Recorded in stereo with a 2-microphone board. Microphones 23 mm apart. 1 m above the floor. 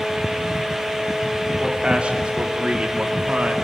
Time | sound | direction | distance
1.6 | a man speaking | 50° right (ahead or behind) | 3.5 m